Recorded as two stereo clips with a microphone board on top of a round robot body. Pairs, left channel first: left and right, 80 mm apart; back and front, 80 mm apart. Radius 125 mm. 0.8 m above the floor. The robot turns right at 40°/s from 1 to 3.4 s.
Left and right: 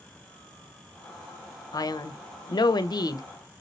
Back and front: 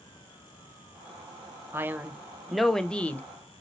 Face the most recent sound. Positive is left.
turn(degrees=125)